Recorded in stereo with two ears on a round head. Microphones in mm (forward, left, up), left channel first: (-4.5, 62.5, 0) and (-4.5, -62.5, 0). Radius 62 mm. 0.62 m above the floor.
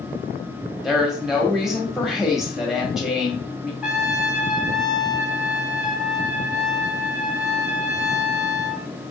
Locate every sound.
0.8 s a woman speaking: centre (ahead or behind), 1.6 m
3.8 s a trumpet: 5° right (ahead or behind), 0.9 m